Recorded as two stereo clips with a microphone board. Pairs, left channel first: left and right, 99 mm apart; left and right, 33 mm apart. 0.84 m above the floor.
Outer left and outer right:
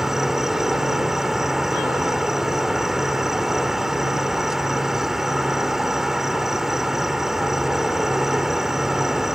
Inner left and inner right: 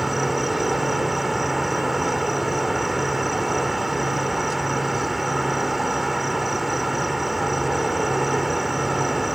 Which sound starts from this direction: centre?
An insect, at 0.0 s.